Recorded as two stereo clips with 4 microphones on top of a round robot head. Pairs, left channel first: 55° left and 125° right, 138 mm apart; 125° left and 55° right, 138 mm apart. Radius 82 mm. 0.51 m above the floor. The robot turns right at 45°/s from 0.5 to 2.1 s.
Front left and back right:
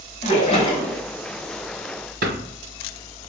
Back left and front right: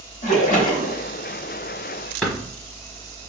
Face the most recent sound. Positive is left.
turn(degrees=-155)